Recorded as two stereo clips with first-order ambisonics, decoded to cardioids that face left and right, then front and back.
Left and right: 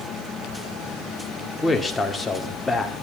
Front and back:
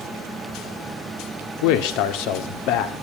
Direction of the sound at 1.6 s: 10° left.